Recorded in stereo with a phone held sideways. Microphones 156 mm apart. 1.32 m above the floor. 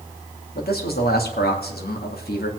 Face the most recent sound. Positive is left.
turn(degrees=85)